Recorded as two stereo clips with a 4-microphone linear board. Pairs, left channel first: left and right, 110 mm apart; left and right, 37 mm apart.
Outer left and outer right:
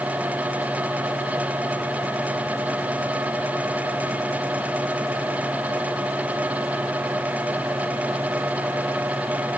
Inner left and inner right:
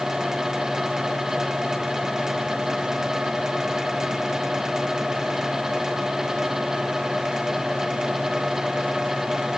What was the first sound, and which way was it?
Only background noise.